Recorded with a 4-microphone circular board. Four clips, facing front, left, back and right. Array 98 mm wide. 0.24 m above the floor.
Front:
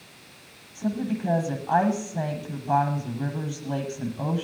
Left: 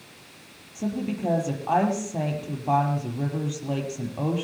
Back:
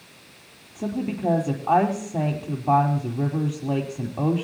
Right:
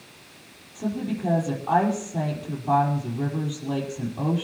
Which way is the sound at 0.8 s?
165° left.